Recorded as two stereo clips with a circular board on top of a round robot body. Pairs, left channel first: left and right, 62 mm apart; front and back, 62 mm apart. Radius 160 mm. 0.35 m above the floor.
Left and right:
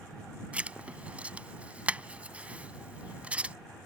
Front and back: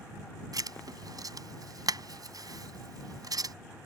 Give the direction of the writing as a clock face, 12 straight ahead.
5 o'clock.